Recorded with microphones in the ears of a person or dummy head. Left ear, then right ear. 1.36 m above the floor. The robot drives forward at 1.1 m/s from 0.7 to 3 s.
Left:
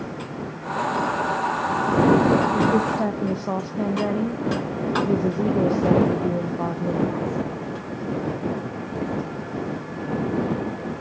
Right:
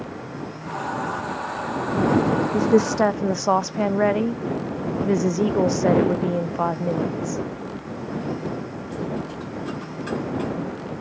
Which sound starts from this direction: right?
A woman speaking, at 2.5 s.